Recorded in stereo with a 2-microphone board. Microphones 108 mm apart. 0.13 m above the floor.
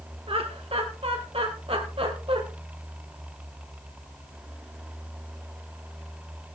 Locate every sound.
0.3 s laughter: 60° right (ahead or behind), 2.0 m; by 2.4 s 55° right (ahead or behind), 3.5 m